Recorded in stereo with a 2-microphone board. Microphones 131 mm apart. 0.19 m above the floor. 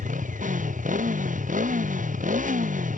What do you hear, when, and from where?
0.0 s a motorcycle: 85° right; by 3.0 s 90° right